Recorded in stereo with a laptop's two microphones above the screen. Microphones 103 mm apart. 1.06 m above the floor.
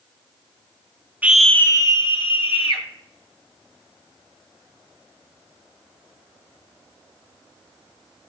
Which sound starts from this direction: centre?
A scream, at 1.2 s.